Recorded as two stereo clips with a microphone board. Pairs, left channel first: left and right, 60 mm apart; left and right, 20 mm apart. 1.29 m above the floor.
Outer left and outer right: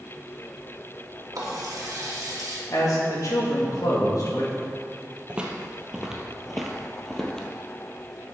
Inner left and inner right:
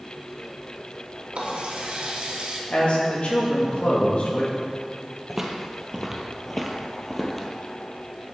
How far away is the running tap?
About 1.9 m.